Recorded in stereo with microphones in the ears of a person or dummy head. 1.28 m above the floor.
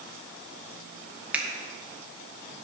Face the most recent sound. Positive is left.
turn(degrees=-5)  # may be behind; listen again after turning